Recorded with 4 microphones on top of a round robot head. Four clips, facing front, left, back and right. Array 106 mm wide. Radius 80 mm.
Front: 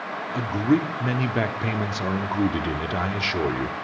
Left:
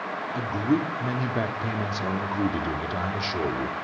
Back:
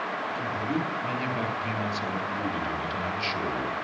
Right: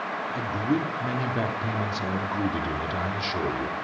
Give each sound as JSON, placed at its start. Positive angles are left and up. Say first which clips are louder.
{"t": 0.3, "sound": "a man speaking", "louder": "left 2 dB, front 11 dB", "azimuth_deg": 15, "distance_m": 1.2}